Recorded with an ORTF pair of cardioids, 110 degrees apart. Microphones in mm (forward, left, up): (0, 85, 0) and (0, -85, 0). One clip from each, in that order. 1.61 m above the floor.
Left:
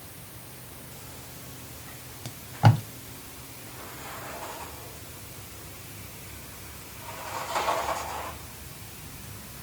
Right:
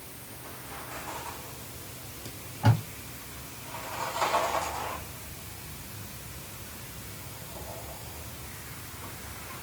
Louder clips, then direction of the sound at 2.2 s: Left 5 dB; 55° left.